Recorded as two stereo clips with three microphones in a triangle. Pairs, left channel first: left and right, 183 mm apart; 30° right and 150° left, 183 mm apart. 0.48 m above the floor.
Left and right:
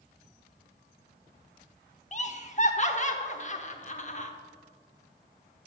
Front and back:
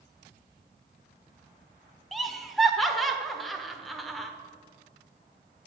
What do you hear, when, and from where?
2.1 s laughter: 60° left, 1.0 m